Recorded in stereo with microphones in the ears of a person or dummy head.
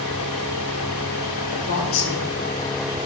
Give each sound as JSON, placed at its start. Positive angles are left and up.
{"t": 1.5, "sound": "a woman speaking", "side_deg": 65, "distance_m": 3.5}